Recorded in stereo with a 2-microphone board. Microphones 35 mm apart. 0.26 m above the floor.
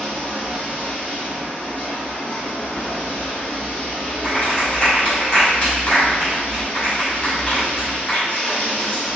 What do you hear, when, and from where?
0.0 s running water: 40° left (ahead or behind), 1.6 m
4.2 s a clap: 30° left (ahead or behind), 1.8 m